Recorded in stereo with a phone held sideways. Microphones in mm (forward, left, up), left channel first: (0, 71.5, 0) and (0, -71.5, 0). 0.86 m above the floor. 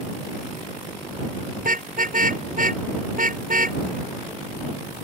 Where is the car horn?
75° right (ahead or behind).